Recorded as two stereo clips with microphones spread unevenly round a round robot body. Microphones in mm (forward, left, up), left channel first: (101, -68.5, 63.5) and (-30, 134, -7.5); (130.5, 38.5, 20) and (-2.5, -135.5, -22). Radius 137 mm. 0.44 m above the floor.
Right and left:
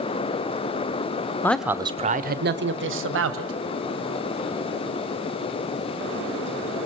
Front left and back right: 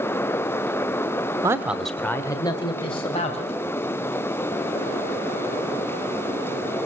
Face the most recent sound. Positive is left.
turn(degrees=125)